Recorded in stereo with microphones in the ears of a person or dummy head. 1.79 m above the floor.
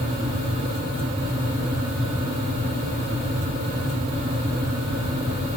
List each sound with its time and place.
Only background noise.